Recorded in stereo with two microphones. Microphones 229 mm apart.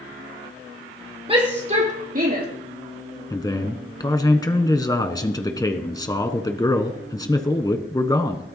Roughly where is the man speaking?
Centre.